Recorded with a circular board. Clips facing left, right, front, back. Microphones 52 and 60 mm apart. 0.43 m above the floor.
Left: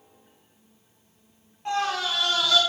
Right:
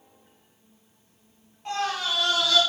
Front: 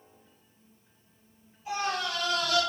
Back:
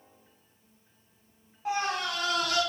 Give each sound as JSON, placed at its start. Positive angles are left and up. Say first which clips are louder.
{"t": 1.6, "sound": "a scream", "louder": "left 2 dB, back 1 dB", "azimuth_deg": 180, "distance_m": 3.5}